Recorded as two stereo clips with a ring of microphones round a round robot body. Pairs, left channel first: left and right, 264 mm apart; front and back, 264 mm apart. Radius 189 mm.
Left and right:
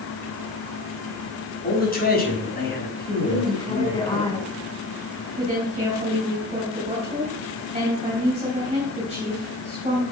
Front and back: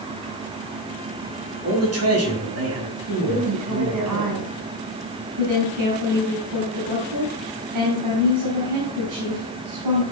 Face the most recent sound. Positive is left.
turn(degrees=-160)